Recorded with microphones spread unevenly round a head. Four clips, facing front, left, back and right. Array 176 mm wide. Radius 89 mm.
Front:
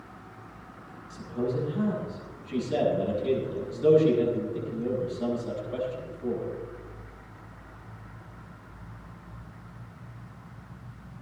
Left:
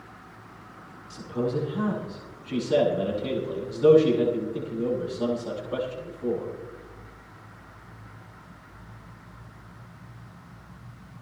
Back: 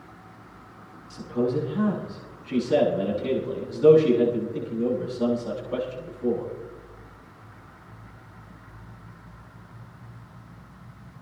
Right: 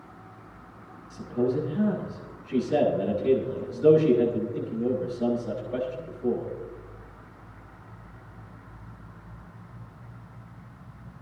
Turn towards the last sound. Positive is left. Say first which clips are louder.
# right 2 dB, back 5 dB
turn(degrees=145)